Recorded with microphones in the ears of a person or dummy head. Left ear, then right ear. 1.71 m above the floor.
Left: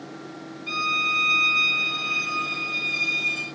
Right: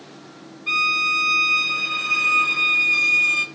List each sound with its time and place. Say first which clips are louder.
0.7 s a violin: right 4 dB; 30° right (ahead or behind), 1.0 m